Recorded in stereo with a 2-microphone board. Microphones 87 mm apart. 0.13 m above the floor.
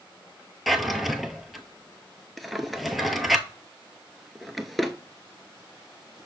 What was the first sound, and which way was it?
A drawer, centre (ahead or behind).